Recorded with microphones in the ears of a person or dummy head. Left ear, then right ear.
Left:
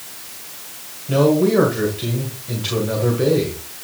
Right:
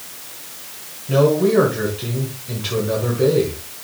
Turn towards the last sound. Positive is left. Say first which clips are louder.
# even
turn(degrees=5)  # may be behind; listen again after turning